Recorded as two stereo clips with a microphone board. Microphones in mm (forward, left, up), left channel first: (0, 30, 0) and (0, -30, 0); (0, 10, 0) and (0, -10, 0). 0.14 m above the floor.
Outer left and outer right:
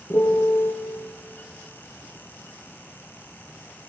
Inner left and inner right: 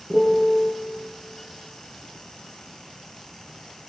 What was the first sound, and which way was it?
A piano, 45° left (ahead or behind).